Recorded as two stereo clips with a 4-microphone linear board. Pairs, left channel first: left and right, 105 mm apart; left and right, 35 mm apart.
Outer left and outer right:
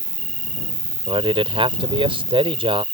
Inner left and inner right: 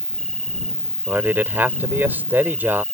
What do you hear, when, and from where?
0.0 s an insect: 15° left (ahead or behind)
1.1 s a man speaking: 60° right (ahead or behind)